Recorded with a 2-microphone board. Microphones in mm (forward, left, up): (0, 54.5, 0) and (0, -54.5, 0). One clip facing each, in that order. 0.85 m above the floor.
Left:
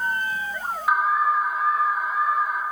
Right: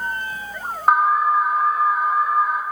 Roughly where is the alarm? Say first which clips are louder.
Right 5 dB; right.